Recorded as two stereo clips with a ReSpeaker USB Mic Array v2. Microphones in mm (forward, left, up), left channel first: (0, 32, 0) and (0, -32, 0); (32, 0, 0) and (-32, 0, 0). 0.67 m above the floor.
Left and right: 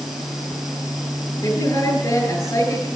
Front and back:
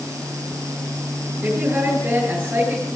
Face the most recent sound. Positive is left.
turn(degrees=120)